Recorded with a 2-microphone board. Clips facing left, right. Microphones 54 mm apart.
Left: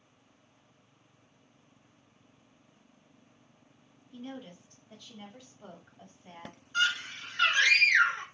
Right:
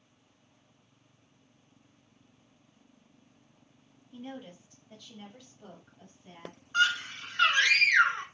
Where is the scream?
45° right (ahead or behind), 2 m.